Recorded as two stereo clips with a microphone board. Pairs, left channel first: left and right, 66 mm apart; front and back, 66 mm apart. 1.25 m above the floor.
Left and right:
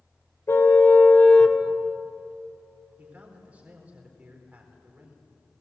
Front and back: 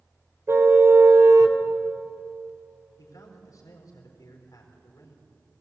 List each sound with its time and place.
0.5 s a car horn: 135° left, 2 m; by 1.6 s 170° left, 1.3 m
3.0 s a man speaking: 20° right, 4 m